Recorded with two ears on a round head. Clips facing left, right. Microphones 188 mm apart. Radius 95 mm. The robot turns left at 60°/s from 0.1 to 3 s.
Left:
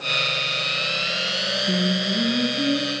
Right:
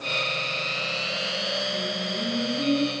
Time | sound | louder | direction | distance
1.7 | singing | left 7 dB | 80° left | 4.5 m